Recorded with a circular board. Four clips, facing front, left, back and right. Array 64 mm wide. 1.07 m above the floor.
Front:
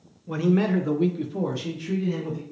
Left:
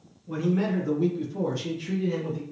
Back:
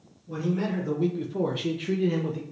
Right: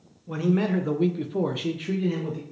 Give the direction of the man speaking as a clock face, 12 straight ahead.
1 o'clock.